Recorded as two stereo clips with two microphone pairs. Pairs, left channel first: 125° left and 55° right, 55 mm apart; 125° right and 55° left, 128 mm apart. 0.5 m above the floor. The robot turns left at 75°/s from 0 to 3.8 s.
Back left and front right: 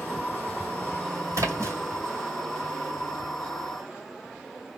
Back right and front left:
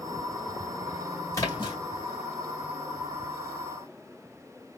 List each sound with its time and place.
1.3 s a splash: 60° right, 2.5 m; by 1.8 s 90° right, 2.5 m